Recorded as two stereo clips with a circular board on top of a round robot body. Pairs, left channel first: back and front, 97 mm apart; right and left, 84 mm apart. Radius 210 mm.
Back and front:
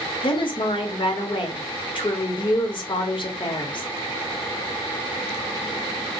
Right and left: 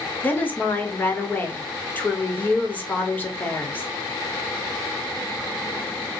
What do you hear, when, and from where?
0.2 s a woman speaking: 155° right, 1.7 m